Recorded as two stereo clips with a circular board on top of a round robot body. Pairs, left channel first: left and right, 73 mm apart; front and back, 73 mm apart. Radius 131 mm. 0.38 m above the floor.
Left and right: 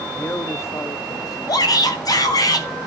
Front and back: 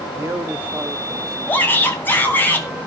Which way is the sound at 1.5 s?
60° left.